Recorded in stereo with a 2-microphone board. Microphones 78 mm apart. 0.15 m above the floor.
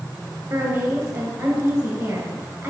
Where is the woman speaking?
20° right (ahead or behind), 2.5 m.